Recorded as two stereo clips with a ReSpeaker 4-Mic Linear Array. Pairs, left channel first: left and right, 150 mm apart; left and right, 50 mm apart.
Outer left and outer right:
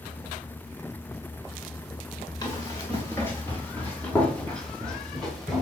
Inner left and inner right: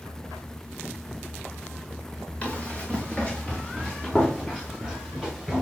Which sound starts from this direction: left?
Running footsteps, at 2.4 s.